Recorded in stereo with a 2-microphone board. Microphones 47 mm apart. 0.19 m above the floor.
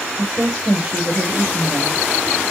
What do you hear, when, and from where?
0.2 s a woman speaking: 10° right (ahead or behind), 5 m